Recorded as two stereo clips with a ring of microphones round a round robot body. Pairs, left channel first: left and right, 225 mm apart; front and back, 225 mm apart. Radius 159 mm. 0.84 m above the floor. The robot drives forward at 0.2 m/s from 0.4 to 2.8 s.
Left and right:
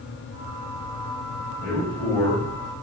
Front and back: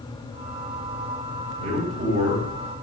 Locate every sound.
1.6 s a man speaking: 160° left, 1.3 m; by 2.5 s 165° left, 1.4 m